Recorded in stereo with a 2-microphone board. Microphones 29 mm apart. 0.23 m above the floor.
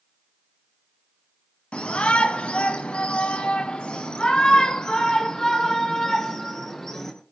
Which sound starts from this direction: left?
A shout, at 1.7 s.